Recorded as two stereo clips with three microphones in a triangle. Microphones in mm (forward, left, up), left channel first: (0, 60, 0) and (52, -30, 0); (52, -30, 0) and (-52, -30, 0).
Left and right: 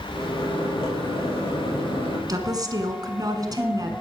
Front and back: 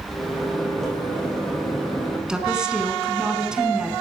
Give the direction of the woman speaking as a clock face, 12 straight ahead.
3 o'clock.